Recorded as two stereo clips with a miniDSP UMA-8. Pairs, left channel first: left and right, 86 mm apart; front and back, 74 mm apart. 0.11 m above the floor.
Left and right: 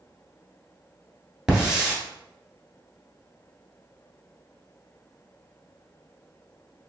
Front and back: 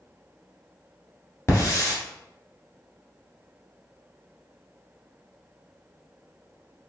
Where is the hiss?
10° right, 1.3 m.